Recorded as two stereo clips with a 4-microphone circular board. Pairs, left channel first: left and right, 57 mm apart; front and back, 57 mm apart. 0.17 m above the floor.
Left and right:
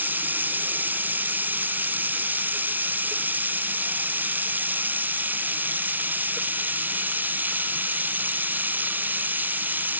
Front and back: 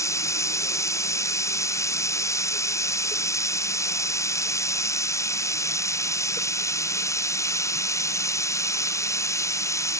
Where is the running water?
30° right.